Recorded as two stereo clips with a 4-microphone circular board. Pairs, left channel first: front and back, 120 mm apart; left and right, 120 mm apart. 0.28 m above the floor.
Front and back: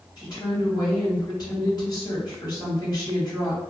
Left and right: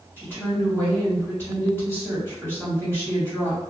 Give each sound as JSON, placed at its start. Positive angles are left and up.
{"t": 0.2, "sound": "a woman speaking", "azimuth_deg": 30, "distance_m": 1.8}